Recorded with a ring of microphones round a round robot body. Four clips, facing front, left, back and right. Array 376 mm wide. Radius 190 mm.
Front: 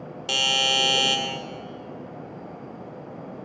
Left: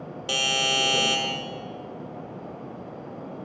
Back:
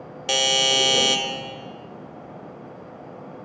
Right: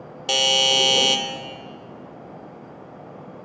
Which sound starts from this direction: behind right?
A doorbell, at 0.3 s.